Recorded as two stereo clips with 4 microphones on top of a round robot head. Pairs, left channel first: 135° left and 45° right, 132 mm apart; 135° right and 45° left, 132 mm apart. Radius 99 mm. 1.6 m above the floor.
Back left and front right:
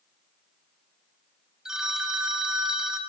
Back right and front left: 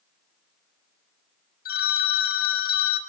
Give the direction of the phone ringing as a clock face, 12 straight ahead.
4 o'clock.